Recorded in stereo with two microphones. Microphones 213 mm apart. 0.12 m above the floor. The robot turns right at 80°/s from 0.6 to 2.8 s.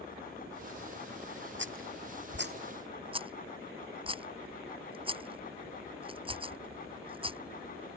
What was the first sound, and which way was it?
A rattle, 55° right (ahead or behind).